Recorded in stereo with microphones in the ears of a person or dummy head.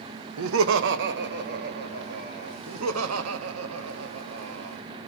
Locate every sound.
0.4 s laughter: 80° right, 1.2 m; by 2.6 s 45° right (ahead or behind), 3.5 m
2.7 s laughter: 85° right, 1.7 m